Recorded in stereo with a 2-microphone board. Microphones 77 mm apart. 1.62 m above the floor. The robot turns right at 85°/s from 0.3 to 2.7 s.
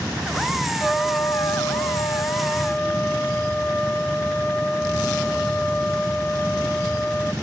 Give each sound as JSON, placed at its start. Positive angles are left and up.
{"t": 0.8, "sound": "a trumpet", "azimuth_deg": -10, "distance_m": 0.8}